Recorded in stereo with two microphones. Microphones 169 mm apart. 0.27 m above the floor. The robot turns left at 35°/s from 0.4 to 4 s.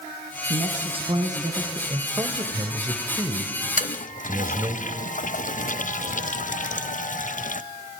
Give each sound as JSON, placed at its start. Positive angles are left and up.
{"t": 0.5, "sound": "a man speaking", "azimuth_deg": -125, "distance_m": 2.0}
{"t": 1.9, "sound": "a man speaking", "side_deg": -25, "distance_m": 1.5}
{"t": 3.8, "sound": "a toilet flushing", "side_deg": 50, "distance_m": 0.6}